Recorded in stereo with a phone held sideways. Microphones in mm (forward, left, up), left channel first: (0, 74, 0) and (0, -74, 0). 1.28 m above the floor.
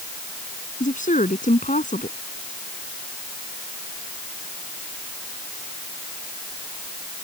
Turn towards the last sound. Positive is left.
turn(degrees=60)  # may be behind; listen again after turning